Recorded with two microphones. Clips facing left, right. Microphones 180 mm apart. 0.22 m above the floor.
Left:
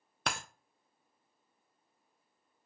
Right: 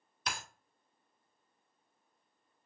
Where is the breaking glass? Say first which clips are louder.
Left 4 dB; 70° left (ahead or behind), 0.5 m.